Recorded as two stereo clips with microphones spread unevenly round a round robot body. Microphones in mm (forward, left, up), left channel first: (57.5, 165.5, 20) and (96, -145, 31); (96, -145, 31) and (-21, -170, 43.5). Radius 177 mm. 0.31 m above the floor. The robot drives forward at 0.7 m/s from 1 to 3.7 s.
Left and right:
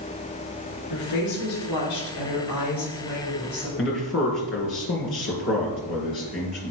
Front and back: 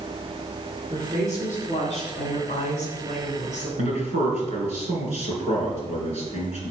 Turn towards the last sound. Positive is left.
turn(degrees=155)